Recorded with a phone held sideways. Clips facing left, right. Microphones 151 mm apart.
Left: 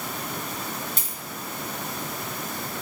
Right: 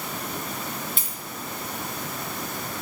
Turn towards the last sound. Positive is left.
turn(degrees=45)  # may be behind; listen again after turning